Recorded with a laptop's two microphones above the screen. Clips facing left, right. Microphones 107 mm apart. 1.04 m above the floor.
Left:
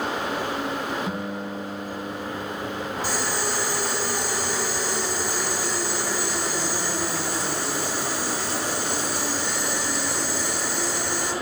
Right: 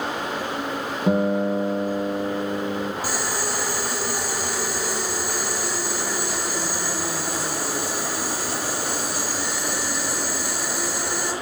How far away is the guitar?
About 0.7 m.